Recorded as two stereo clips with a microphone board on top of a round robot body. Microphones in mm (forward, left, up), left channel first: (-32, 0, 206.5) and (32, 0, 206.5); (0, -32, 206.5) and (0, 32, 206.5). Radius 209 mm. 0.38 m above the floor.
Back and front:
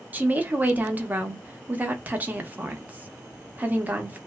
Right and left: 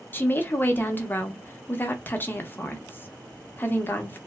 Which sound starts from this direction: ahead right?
A woman speaking, at 0.1 s.